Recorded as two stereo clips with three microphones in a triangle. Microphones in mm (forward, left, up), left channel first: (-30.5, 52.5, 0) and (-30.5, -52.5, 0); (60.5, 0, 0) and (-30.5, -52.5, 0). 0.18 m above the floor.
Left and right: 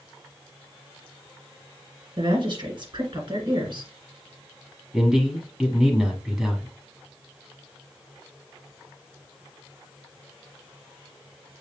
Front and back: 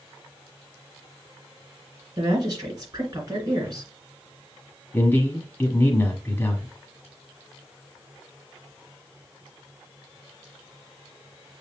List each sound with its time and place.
2.2 s a woman speaking: 105° right, 2.5 m
4.9 s a man speaking: 10° right, 1.1 m